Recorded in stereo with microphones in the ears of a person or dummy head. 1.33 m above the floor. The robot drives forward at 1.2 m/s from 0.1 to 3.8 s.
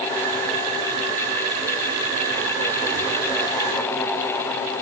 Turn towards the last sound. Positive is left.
No sound to turn to.